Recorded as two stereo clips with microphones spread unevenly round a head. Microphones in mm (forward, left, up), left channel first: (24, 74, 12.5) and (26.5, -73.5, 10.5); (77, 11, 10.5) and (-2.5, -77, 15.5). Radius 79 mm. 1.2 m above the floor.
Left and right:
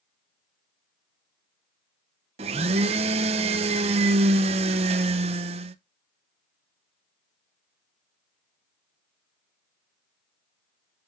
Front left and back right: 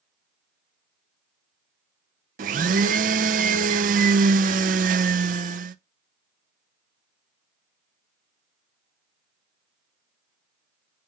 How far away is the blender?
About 0.5 m.